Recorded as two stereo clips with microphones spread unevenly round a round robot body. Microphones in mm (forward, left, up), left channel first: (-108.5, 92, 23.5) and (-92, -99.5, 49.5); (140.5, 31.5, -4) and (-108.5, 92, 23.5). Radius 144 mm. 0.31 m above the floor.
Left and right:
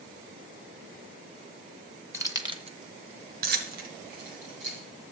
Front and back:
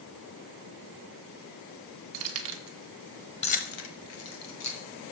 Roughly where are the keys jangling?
Behind.